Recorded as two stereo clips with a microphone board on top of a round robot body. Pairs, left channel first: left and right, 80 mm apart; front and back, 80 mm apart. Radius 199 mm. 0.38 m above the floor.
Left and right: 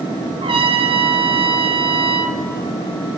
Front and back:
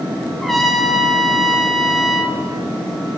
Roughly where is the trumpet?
Right.